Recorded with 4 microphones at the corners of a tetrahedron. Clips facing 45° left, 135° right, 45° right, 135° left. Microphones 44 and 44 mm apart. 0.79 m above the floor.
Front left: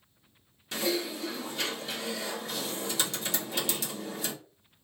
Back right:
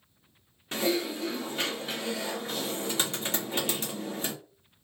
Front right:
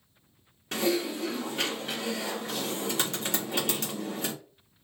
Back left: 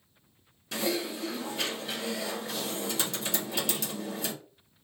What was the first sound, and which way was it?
Typing on a keyboard, 85° right.